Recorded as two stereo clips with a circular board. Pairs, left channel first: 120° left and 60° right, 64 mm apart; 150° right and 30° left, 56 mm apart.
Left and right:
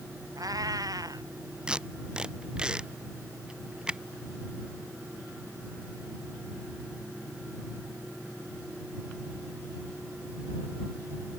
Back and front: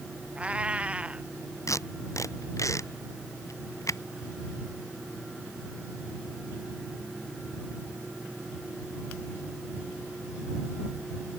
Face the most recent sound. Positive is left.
turn(degrees=-135)